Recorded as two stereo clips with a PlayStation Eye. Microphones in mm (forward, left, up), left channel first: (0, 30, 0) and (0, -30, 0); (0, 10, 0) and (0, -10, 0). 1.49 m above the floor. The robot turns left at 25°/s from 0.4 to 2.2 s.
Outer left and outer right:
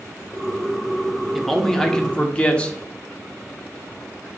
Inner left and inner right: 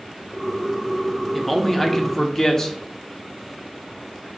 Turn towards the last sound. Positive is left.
turn(degrees=20)  # may be behind; listen again after turning